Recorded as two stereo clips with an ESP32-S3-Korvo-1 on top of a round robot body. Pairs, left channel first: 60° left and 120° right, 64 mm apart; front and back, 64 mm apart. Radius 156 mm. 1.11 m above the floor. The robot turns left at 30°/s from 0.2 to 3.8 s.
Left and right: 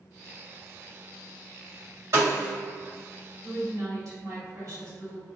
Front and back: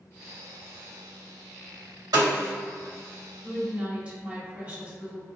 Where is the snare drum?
165° right, 1.7 m; by 2.5 s 175° right, 1.7 m.